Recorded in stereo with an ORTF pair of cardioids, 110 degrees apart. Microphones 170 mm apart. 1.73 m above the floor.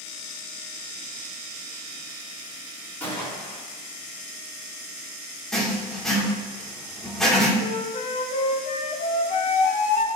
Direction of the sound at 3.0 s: 10° left.